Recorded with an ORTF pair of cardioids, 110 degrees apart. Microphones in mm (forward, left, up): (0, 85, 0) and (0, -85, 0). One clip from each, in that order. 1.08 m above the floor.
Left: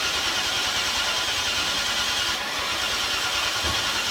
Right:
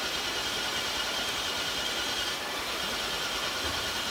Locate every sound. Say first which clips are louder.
0.0 s an engine running: left 7 dB; 50° left, 1.8 m